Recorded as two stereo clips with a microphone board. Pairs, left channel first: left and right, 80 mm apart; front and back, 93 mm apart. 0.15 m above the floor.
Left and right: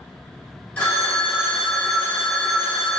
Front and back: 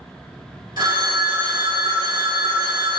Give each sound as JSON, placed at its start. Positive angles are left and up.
{"t": 0.8, "sound": "a phone ringing", "azimuth_deg": 160, "distance_m": 1.1}